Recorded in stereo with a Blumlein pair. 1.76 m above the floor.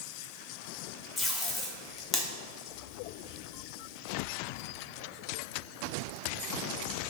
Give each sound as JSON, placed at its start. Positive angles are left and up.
{"t": 1.2, "sound": "tape being pulled", "azimuth_deg": 20, "distance_m": 0.6}